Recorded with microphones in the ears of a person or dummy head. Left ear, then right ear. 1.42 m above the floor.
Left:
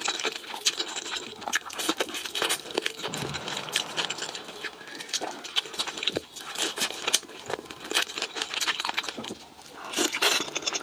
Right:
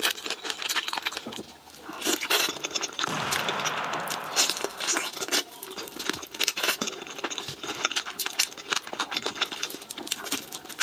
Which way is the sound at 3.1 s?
60° right (ahead or behind).